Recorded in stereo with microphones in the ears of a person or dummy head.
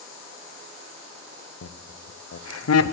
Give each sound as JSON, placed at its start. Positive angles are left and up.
{"t": 1.6, "sound": "laughter", "side_deg": 75, "distance_m": 0.7}